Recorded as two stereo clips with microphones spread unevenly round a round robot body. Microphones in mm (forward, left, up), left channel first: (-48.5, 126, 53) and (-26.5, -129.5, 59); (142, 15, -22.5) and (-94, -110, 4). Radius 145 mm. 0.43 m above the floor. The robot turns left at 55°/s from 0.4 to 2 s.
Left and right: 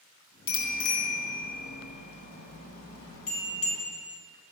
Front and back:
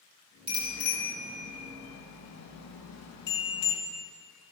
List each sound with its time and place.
0.5 s a bicycle bell: 135° left, 3 m; by 3.8 s 50° left, 3 m